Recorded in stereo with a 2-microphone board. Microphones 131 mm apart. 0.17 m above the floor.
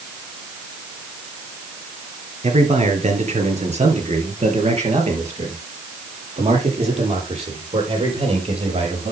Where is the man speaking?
60° right (ahead or behind), 3 m; by 9.1 s 50° right (ahead or behind), 6 m.